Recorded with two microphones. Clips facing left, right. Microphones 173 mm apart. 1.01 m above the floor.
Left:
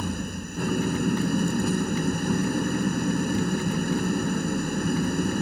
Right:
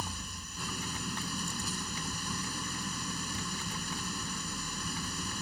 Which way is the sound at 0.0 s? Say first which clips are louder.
Left 13 dB; 60° left (ahead or behind).